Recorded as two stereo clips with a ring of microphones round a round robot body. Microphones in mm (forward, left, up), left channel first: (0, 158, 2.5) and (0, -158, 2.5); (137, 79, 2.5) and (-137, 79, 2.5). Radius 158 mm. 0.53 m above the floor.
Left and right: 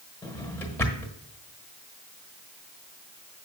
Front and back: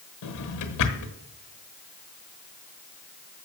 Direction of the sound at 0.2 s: 5° left.